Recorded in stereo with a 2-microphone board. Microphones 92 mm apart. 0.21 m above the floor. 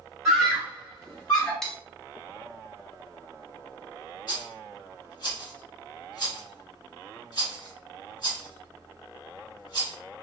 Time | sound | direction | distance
0.2 | a scream | 5° right (ahead or behind) | 1.4 m
1.6 | cutlery clinking | 5° left (ahead or behind) | 0.6 m
4.3 | a rattle | 45° left (ahead or behind) | 1.8 m